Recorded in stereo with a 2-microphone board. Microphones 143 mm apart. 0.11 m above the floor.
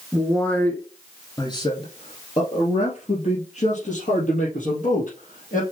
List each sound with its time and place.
0.1 s a man speaking: centre (ahead or behind), 1.4 m; by 5.6 s 65° left (ahead or behind), 3.5 m